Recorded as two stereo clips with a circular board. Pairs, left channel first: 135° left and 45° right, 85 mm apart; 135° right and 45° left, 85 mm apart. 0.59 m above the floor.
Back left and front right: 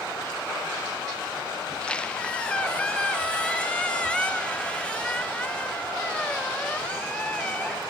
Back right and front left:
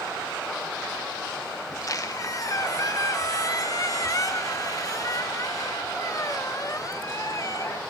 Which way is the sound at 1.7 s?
150° right.